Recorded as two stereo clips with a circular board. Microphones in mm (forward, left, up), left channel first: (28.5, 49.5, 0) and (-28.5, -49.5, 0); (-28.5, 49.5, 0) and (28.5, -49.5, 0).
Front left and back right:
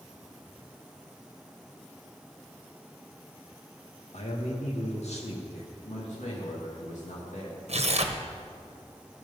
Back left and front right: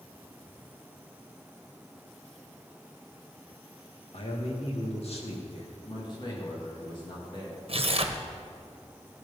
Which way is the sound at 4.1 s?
85° left.